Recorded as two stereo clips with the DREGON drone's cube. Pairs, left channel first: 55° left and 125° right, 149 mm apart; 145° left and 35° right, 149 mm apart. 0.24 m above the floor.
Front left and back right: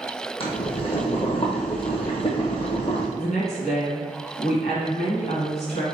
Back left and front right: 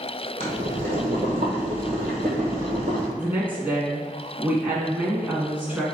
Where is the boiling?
5° left, 1.6 m.